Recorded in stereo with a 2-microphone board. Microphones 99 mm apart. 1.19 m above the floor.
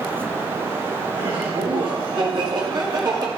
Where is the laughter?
60° right (ahead or behind), 4 m; by 3.3 s 45° right (ahead or behind), 3 m.